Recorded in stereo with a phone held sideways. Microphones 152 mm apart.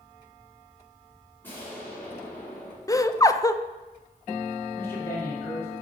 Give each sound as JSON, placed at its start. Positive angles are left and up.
{"t": 1.4, "sound": "an explosion", "side_deg": 15, "distance_m": 3.0}
{"t": 2.9, "sound": "laughter", "side_deg": 20, "distance_m": 0.5}
{"t": 4.8, "sound": "a man speaking", "side_deg": 15, "distance_m": 2.5}